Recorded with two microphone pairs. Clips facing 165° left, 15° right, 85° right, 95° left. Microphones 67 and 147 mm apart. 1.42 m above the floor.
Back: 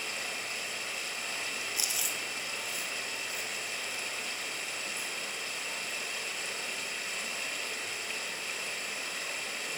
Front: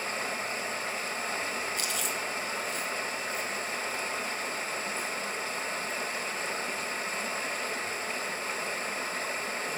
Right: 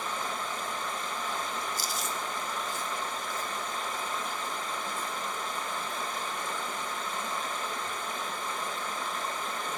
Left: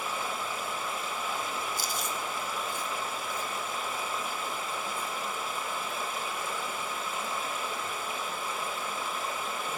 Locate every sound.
0.0 s running water: 15° left, 1.5 m
1.8 s chewing: 85° left, 2.0 m